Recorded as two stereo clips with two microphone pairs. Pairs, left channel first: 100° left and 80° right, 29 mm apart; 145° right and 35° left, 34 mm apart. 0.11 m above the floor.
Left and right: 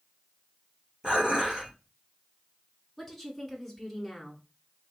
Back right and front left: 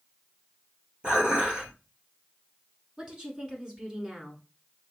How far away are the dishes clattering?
About 1.9 m.